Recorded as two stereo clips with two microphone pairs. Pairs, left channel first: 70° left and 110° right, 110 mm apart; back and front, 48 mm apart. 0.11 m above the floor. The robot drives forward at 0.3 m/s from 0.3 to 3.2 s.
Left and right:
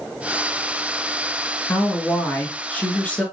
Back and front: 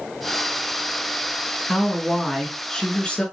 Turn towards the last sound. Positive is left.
turn(degrees=140)